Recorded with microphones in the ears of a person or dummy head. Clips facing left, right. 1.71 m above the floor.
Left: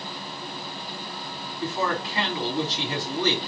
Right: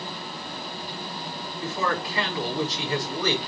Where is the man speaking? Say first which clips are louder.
Left 1 dB; 30° left (ahead or behind), 4.5 m.